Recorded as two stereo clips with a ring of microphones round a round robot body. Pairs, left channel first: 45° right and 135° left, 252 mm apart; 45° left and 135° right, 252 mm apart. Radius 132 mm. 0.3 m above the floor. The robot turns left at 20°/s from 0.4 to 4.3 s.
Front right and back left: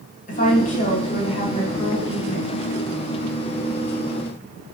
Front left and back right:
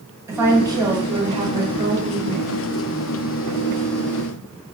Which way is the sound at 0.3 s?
65° right.